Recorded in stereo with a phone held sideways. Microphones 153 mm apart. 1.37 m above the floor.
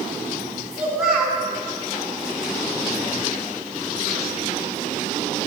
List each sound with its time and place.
0.7 s a child speaking: 5° right (ahead or behind), 3.5 m